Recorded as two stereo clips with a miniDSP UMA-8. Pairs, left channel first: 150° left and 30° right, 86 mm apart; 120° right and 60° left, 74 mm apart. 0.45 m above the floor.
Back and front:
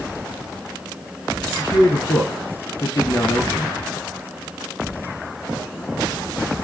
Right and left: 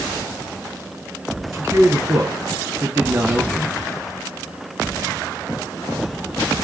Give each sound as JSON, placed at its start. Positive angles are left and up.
{"t": 1.5, "sound": "a man speaking", "azimuth_deg": 110, "distance_m": 4.0}